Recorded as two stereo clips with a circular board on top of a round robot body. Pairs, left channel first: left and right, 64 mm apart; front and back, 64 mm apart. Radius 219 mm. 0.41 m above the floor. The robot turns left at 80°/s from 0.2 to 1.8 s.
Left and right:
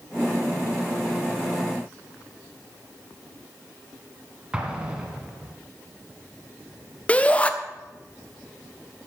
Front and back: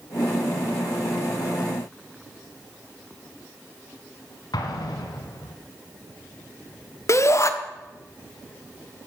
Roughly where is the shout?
Ahead left.